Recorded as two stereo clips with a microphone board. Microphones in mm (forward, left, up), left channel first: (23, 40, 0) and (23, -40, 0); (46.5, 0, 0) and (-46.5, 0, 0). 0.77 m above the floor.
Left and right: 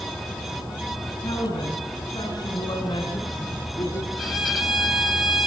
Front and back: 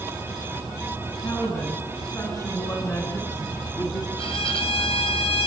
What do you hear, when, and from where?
1.2 s a woman speaking: 55° left, 7.5 m; by 4.1 s 40° left, 5.5 m
4.2 s a violin: straight ahead, 4 m